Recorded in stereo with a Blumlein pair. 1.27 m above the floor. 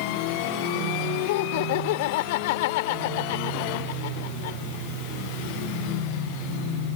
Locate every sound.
1.3 s laughter: 50° left